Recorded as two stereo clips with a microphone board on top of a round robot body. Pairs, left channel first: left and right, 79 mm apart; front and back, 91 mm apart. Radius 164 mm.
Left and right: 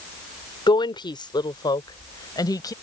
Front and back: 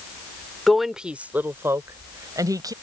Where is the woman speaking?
85° left; by 2.7 s 130° left.